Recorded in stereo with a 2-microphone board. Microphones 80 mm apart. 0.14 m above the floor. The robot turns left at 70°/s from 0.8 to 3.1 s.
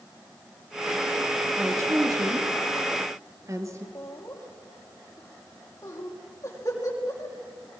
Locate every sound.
1.6 s a woman speaking: 20° right (ahead or behind), 3 m; by 3.9 s 40° right (ahead or behind), 3 m
4.0 s laughter: 35° left (ahead or behind), 5.5 m